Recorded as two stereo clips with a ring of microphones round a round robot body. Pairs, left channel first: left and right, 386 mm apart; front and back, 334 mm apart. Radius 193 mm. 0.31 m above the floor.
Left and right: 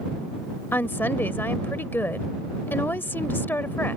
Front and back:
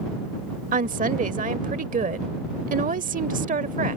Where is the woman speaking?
165° left.